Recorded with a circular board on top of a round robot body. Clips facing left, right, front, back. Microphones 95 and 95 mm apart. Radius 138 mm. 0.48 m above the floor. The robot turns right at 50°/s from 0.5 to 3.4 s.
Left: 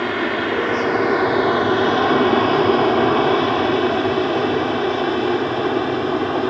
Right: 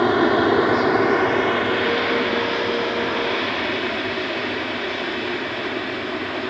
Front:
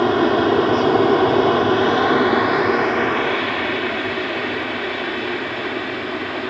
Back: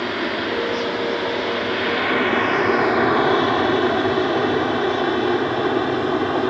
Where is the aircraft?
30° right; by 6.5 s 130° left.